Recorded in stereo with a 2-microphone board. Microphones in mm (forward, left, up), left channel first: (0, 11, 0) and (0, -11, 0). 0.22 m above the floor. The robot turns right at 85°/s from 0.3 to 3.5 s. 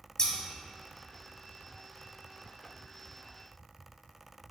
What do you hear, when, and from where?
0.2 s scissors: 30° left (ahead or behind), 0.6 m